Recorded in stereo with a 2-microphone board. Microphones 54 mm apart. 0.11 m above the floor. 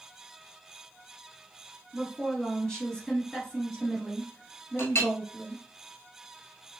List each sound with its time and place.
1.9 s a woman speaking: 15° left (ahead or behind), 1.4 m
4.8 s a clink: 50° left (ahead or behind), 1.0 m